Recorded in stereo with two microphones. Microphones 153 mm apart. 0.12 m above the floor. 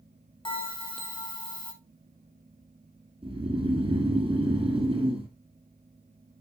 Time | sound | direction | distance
0.5 | a bell | 30° left (ahead or behind) | 1.5 m
3.2 | snoring | 35° right (ahead or behind) | 2 m